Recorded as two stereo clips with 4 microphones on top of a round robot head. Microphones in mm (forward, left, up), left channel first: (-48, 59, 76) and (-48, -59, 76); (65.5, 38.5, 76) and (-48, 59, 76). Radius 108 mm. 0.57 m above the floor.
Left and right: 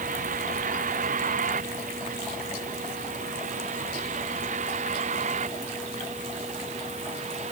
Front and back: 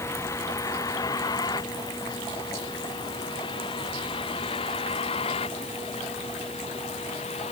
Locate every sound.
0.0 s a vehicle: 80° right; by 7.5 s 50° right